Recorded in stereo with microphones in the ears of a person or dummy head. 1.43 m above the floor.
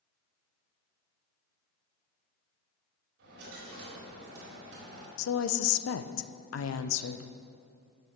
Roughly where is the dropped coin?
Right.